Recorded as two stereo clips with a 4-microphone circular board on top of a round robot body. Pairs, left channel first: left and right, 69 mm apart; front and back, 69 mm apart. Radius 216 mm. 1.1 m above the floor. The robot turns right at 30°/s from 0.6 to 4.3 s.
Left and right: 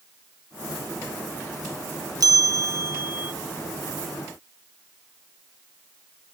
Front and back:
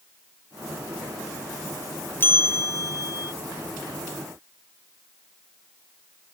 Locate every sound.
2.2 s a bell: 60° right; by 3.3 s 25° right